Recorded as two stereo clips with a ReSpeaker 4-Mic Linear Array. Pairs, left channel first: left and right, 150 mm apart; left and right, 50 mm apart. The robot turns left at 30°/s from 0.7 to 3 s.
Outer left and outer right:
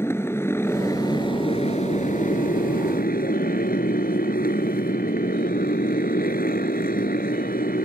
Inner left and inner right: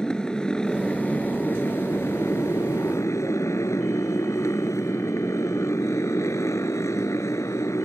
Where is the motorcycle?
165° left; by 7.9 s 95° left.